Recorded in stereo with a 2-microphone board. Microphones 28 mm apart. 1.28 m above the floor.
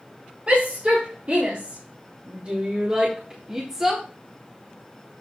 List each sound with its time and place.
0.5 s a shout: 50° right (ahead or behind), 4 m; by 4.0 s 10° right (ahead or behind), 1.5 m